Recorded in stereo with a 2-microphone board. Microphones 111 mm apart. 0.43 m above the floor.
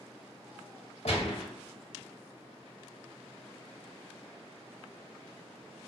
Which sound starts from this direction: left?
A gunshot, at 1.1 s.